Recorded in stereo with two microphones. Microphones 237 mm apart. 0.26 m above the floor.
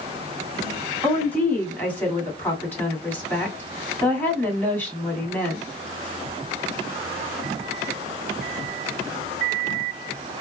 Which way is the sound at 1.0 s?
5° left (ahead or behind).